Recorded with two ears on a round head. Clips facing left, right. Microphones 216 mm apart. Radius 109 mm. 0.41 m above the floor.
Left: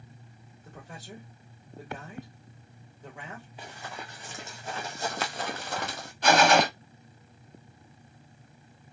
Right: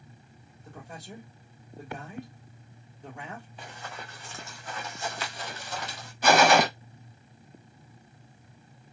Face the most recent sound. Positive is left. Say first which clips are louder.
# right 1 dB
turn(degrees=-5)  # may be behind; listen again after turning